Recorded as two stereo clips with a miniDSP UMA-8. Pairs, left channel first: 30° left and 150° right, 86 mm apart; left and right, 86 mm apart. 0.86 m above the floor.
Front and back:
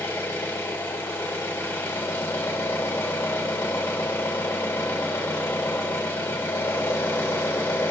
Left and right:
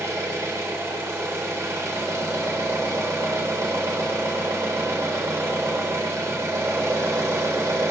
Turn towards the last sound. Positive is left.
turn(degrees=-30)